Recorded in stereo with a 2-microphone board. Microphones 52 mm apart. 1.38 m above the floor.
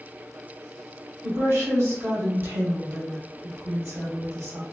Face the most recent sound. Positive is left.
turn(degrees=-60)  # may be behind; listen again after turning